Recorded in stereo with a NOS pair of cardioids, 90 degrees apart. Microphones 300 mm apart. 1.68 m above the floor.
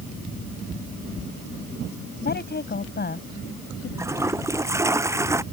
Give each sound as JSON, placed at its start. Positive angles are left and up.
{"t": 2.2, "sound": "a woman speaking", "azimuth_deg": 35}
{"t": 4.0, "sound": "a toilet flushing", "azimuth_deg": -10}